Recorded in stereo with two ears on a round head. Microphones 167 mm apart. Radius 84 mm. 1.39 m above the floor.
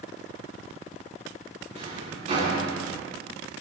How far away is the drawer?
About 7.5 m.